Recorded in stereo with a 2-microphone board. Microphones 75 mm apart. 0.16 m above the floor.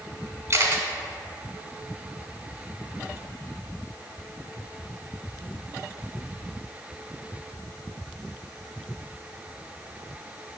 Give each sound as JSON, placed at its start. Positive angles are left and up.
{"t": 0.5, "sound": "a camera shutter", "side_deg": -35, "distance_m": 0.7}